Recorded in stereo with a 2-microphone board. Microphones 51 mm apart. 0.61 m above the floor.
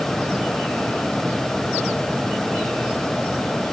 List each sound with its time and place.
Only background noise.